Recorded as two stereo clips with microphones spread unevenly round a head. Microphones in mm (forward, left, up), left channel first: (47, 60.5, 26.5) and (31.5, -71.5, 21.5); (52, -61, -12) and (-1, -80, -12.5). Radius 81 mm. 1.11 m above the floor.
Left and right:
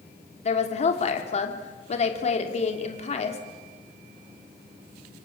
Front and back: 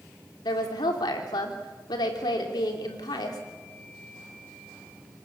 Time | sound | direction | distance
0.5 | a woman speaking | 45° left | 3 m